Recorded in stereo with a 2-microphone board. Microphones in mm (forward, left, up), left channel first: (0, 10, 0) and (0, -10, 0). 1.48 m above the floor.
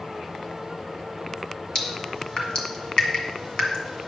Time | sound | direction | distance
1.8 | dripping | 45° left (ahead or behind) | 1.8 m